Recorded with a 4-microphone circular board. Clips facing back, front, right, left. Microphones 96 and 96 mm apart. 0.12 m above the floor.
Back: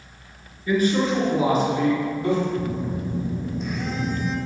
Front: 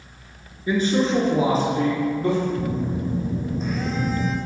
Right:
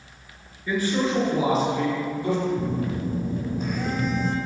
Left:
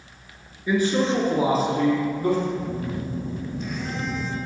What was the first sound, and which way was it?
A man speaking, 35° left.